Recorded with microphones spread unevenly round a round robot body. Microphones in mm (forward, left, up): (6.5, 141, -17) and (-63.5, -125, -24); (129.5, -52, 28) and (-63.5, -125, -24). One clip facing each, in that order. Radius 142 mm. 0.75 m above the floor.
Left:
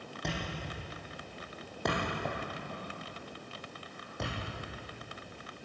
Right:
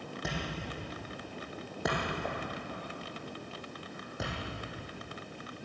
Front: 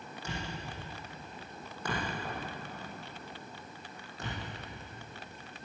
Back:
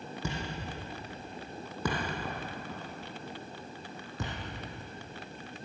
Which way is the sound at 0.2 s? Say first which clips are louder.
Left 1 dB, back 3 dB; 170° left.